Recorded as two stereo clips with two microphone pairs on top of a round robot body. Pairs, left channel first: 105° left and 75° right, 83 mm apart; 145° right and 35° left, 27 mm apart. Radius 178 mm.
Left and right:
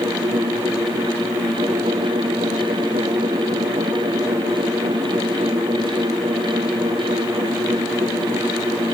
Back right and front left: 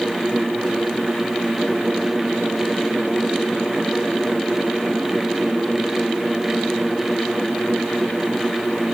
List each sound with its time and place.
Only background noise.